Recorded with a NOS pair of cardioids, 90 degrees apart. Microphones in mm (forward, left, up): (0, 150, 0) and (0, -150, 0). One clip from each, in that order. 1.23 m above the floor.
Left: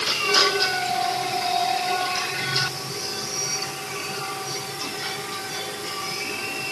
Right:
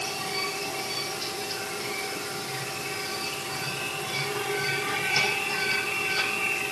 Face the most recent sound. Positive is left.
No sound to turn to.